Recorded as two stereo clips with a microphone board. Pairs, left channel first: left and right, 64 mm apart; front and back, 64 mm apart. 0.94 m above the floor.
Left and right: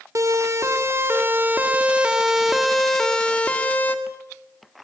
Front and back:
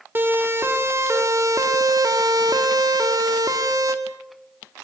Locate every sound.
0.1 s a siren: 125° right, 2.5 m; by 4.0 s 150° left, 2.5 m